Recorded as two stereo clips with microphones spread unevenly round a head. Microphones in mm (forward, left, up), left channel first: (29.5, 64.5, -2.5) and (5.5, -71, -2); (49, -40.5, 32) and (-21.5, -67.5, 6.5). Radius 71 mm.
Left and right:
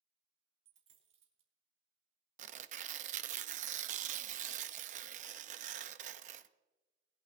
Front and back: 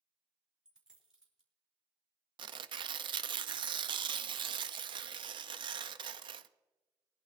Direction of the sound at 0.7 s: 70° right.